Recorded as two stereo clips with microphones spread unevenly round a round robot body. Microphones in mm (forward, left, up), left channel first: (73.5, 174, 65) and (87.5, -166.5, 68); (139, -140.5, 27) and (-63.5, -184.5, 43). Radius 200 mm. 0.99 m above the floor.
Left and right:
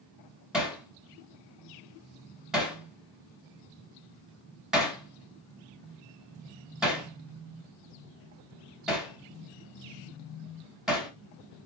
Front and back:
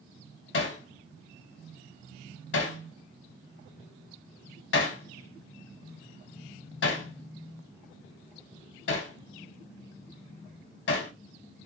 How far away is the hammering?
About 0.8 m.